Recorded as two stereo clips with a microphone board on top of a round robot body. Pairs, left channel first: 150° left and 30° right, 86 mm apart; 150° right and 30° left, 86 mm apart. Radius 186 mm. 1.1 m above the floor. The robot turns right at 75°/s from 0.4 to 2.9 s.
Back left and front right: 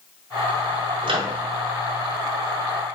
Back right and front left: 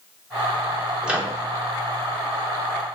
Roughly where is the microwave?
Ahead right.